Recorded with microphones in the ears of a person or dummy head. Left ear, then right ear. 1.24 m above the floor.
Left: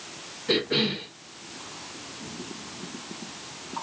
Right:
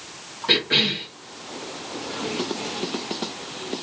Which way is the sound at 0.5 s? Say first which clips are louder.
Right 6 dB; 40° right (ahead or behind).